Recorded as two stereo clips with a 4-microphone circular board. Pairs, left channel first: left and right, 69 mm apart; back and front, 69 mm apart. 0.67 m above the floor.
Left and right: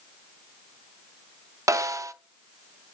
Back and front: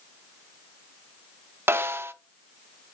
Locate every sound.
1.7 s a snare drum: 55° right, 0.5 m